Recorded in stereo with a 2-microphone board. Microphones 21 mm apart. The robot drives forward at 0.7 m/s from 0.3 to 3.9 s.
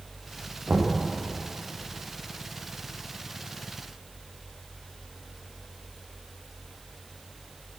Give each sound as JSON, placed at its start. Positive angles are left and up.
{"t": 0.7, "sound": "knocking", "side_deg": -40, "distance_m": 9.5}